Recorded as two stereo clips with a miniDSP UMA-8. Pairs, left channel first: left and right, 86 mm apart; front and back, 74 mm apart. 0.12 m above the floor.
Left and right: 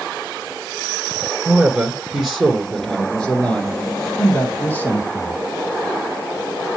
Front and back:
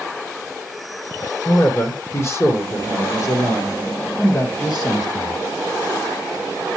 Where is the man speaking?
20° right, 1.6 m; by 5.4 s 25° left, 3 m.